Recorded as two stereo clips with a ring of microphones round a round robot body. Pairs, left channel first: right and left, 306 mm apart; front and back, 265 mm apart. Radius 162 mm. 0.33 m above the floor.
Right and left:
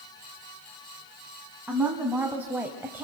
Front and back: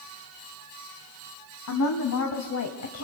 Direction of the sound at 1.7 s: 5° left.